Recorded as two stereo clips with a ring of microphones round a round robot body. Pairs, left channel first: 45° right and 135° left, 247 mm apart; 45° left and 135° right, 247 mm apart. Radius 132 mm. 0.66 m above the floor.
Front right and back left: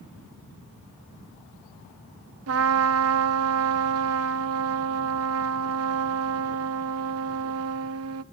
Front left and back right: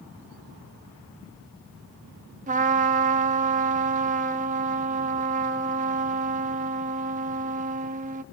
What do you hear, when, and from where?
2.5 s a trumpet: 165° left, 0.9 m